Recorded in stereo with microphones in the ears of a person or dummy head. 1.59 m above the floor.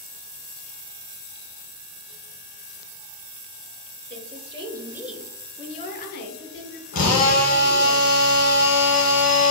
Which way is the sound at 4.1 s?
40° right (ahead or behind).